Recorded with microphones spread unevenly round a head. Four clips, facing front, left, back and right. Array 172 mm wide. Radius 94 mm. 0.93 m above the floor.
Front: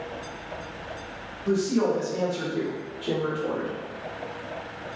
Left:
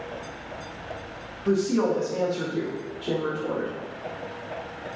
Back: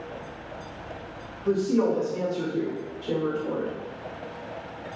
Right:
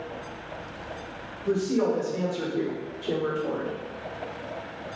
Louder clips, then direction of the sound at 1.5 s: Left 2 dB, back 1 dB; 100° left.